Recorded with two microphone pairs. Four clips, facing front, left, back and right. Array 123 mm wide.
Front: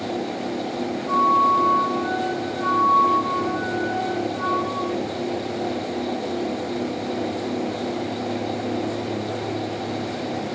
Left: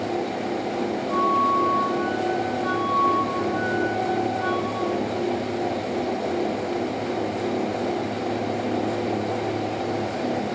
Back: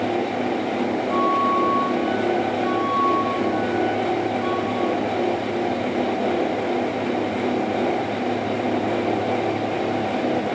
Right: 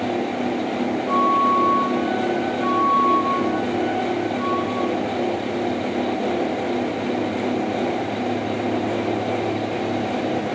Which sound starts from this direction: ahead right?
A flute, at 1.1 s.